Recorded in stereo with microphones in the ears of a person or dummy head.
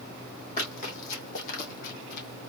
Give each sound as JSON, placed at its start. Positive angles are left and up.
{"t": 0.6, "sound": "running footsteps", "side_deg": 50, "distance_m": 3.5}